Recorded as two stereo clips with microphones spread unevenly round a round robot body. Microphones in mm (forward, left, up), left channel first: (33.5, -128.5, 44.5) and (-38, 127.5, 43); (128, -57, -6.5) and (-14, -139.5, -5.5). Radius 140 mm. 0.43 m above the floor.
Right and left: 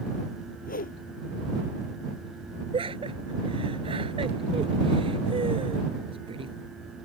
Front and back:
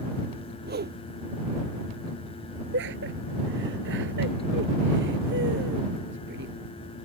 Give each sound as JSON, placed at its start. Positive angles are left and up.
{"t": 0.6, "sound": "a whoosh", "azimuth_deg": -135}
{"t": 2.7, "sound": "laughter", "azimuth_deg": 175}